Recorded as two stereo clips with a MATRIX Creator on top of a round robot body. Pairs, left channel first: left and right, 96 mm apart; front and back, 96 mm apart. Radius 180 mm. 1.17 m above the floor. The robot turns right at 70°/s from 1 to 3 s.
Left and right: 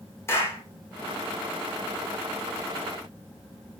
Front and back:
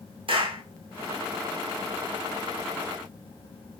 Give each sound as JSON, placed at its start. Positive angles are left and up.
{"t": 0.3, "sound": "a clap", "azimuth_deg": 155, "distance_m": 1.2}